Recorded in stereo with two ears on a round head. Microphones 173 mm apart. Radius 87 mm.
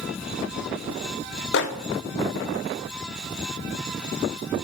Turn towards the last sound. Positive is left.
turn(degrees=60)  # may be behind; listen again after turning